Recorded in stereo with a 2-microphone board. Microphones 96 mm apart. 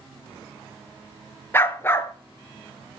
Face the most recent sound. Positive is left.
turn(degrees=25)  # may be behind; listen again after turning